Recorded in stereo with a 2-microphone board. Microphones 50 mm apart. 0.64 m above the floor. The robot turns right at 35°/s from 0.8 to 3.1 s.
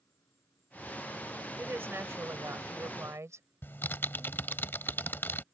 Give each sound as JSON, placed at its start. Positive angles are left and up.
{"t": 0.0, "sound": "an insect", "azimuth_deg": 115}
{"t": 1.6, "sound": "a woman speaking", "azimuth_deg": -135}
{"t": 3.6, "sound": "typing on a keyboard", "side_deg": 45}